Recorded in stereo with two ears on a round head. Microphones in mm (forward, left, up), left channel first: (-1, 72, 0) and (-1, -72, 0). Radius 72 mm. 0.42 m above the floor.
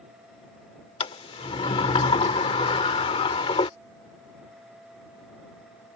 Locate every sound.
1.0 s a sliding door: 35° left (ahead or behind)